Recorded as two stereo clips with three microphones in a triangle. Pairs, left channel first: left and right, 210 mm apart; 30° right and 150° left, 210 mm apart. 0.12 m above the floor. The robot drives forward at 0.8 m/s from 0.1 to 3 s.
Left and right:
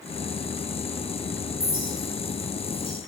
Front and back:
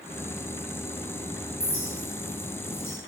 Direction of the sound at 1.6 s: 35° right.